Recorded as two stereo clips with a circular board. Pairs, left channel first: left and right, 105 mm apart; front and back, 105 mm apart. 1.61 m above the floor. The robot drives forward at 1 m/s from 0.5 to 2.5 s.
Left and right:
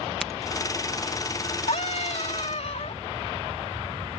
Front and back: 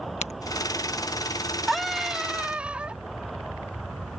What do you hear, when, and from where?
0.2 s a crack: straight ahead
1.7 s a scream: 90° left; by 3.0 s 100° left